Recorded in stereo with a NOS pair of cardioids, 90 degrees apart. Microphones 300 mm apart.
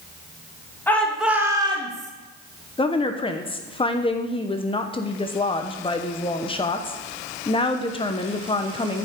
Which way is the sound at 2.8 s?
20° left.